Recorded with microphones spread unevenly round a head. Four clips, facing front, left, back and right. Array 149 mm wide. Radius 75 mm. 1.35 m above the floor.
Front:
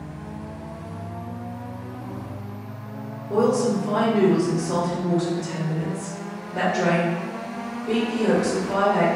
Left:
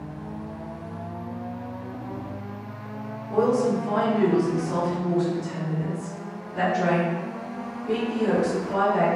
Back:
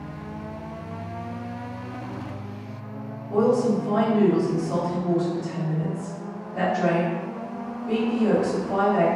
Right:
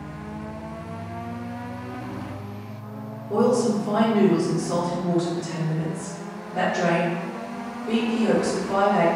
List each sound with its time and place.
3.3 s a woman speaking: 45° right, 1.2 m